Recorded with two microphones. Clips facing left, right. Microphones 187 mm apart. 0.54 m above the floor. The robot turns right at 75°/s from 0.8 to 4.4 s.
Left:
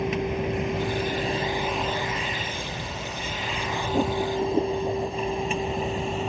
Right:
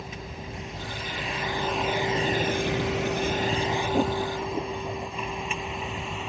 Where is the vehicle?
85° left; by 6.3 s 40° left (ahead or behind).